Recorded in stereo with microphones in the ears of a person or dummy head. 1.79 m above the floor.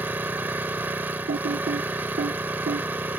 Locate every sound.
0.0 s an engine running: 10° right (ahead or behind)
1.3 s typing on a keyboard: 40° right (ahead or behind)